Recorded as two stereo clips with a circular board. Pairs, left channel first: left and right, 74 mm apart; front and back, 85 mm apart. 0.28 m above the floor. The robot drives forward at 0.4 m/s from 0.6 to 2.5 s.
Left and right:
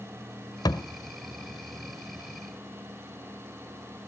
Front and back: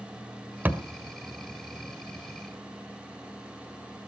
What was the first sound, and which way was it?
A thud, 110° left.